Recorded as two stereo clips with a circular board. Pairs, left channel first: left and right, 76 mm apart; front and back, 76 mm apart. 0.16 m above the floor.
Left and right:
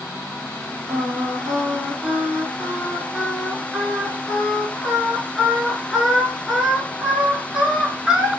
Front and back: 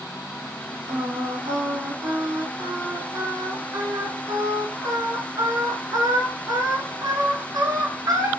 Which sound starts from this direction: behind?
Singing, at 0.9 s.